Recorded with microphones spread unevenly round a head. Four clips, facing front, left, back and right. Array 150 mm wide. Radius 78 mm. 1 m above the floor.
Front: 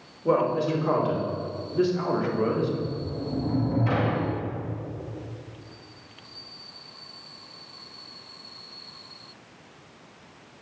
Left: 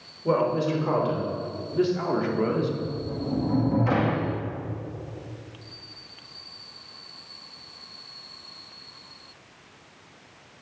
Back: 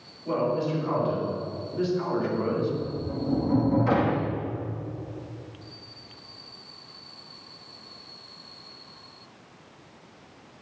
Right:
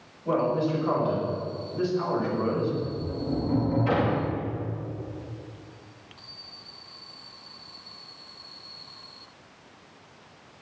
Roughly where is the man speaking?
Ahead left.